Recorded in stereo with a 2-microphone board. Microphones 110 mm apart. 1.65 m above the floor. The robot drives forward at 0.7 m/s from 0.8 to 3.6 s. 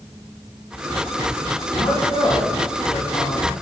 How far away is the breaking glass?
No breaking glass in this recording.